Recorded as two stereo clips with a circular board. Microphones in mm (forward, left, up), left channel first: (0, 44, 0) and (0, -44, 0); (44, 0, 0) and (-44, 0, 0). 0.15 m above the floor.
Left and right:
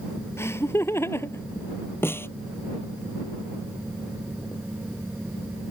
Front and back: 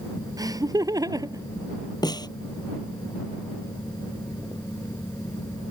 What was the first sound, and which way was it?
Laughter, 145° left.